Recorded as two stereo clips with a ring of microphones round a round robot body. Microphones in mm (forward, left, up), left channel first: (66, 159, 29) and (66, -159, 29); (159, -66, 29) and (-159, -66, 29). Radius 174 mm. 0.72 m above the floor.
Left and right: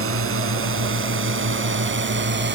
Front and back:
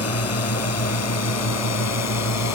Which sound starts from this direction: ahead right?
A drone, at 0.0 s.